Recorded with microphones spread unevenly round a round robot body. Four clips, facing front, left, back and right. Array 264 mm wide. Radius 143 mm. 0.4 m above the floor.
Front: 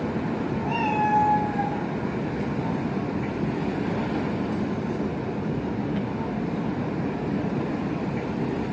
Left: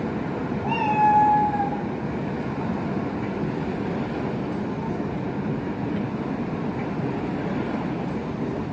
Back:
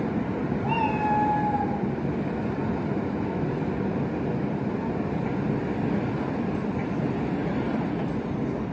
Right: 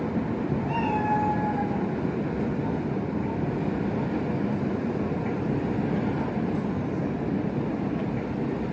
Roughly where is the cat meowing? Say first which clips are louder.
Left 8 dB, front 1 dB; left.